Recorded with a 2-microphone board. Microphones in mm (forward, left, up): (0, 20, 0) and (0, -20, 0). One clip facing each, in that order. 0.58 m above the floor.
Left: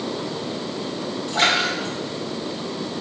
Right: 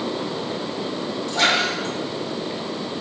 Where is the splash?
35° left (ahead or behind), 1.7 m.